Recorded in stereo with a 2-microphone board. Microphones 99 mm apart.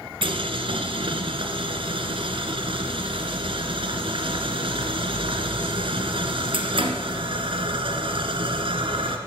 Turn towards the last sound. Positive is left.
turn(degrees=-65)  # may be behind; listen again after turning